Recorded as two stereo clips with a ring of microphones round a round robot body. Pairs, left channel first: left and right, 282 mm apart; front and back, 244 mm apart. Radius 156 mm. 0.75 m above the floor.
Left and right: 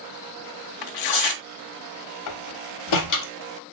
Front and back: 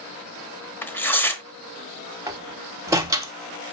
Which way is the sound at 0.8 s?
80° left.